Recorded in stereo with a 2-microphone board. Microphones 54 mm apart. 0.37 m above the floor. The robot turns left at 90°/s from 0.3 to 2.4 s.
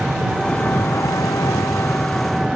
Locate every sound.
0.0 s an engine running: 175° right; by 2.6 s 5° right